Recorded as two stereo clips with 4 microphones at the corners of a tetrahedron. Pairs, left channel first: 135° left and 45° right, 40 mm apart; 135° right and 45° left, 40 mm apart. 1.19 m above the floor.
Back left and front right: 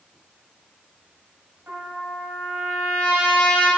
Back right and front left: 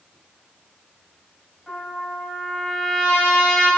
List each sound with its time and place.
1.7 s a trumpet: 60° right, 3 m